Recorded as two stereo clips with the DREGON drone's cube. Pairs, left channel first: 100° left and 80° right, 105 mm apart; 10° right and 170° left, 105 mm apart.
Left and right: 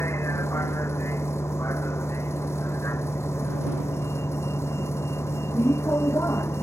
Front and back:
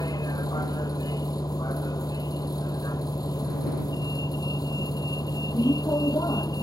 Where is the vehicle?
40° left.